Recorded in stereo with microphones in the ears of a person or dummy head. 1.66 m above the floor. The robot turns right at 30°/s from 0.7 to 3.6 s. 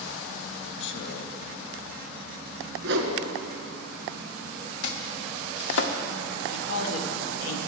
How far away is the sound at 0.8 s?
About 0.7 m.